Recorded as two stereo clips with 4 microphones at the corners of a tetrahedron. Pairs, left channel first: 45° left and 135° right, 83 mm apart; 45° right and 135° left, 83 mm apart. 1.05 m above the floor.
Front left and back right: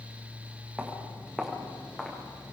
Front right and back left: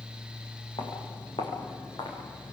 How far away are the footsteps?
About 6 m.